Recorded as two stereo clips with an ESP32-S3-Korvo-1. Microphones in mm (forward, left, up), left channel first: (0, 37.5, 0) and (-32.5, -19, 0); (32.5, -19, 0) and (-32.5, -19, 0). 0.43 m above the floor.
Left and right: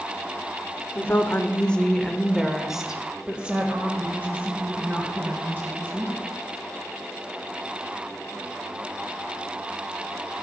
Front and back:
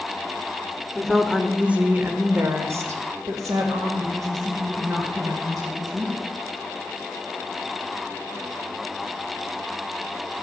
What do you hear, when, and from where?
0.9 s a woman speaking: 85° left, 1.0 m; by 6.3 s 175° right, 3 m